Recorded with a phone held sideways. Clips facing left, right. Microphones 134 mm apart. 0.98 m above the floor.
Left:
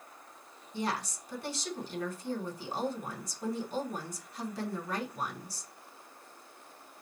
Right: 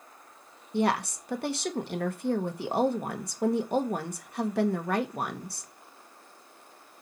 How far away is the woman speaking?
About 1.4 m.